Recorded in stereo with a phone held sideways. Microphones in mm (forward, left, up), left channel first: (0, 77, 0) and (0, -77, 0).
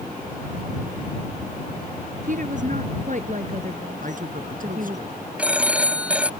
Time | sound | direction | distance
2.2 | a woman speaking | 55° right (ahead or behind) | ?
4.0 | a man speaking | 60° right (ahead or behind) | ?
5.4 | a phone ringing | 10° right (ahead or behind) | ?